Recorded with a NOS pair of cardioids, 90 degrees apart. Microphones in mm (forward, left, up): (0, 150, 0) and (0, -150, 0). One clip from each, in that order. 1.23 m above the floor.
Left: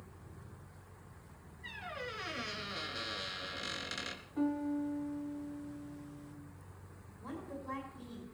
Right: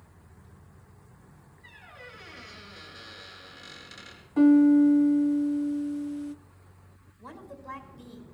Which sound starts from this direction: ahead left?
A squeak, at 1.6 s.